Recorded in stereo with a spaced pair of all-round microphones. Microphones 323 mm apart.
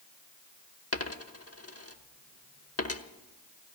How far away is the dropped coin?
About 1.1 m.